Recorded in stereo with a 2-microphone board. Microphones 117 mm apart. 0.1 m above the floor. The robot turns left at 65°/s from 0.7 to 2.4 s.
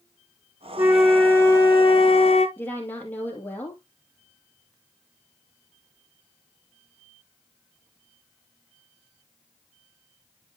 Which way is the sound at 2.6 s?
15° left (ahead or behind).